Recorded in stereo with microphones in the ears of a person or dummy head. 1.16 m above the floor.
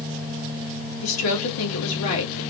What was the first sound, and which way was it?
A woman speaking, 85° left.